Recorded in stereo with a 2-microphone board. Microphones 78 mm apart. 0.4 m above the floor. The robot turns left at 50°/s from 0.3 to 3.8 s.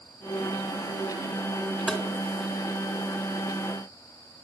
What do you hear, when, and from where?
1.9 s tapping: 10° right (ahead or behind), 2.5 m; by 2.0 s centre (ahead or behind), 2.5 m